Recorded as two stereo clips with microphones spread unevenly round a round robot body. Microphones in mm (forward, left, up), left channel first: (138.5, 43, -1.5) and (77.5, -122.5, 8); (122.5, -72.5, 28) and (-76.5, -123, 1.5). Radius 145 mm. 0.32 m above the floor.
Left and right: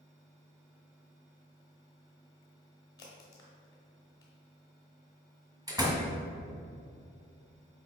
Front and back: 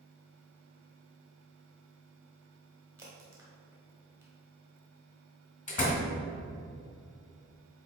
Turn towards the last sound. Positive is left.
turn(degrees=-40)